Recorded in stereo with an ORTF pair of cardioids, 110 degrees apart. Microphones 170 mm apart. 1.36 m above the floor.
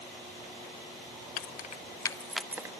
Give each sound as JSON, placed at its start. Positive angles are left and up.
{"t": 1.4, "sound": "keys jangling", "azimuth_deg": 70, "distance_m": 0.7}